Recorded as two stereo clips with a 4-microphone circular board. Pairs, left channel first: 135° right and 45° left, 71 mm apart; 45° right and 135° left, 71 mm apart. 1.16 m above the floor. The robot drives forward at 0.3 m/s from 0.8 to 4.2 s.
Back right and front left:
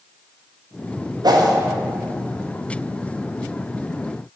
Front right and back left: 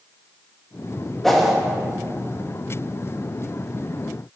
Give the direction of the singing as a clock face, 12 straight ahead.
I don't hear singing.